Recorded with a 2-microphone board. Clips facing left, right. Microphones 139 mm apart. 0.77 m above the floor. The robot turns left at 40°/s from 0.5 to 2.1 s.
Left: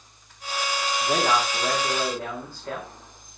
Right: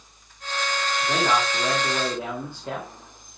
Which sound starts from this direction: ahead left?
A man speaking, at 1.0 s.